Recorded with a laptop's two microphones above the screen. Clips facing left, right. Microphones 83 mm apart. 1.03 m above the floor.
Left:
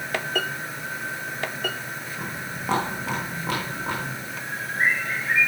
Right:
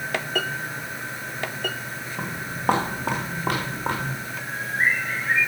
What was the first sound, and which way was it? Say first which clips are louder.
Footsteps: right 3 dB; 50° right (ahead or behind).